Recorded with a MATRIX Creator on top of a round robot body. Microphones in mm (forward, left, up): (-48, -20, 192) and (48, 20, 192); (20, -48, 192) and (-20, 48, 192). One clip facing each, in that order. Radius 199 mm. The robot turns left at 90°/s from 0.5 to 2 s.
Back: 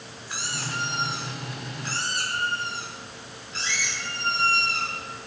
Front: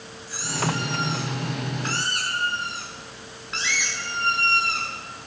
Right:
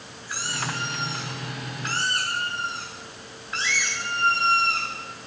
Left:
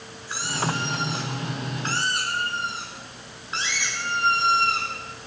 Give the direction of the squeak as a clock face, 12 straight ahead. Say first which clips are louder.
Front 7 dB, left 4 dB; 6 o'clock.